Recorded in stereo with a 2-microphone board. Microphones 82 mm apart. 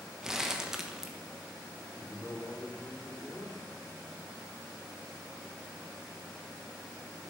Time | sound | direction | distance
0.2 | crumpling | 5° right (ahead or behind) | 1.3 m
1.9 | a man speaking | 15° left (ahead or behind) | 3 m